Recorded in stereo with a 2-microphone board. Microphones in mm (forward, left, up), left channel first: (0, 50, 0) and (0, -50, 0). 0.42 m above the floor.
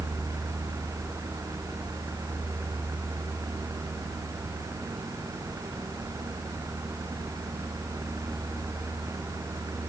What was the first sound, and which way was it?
Only background noise.